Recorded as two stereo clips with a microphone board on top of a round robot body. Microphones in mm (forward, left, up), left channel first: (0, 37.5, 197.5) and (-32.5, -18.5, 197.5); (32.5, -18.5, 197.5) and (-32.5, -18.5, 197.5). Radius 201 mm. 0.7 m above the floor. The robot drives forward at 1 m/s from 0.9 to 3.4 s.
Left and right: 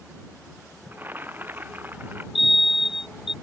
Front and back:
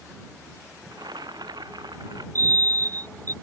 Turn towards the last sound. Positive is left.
turn(degrees=160)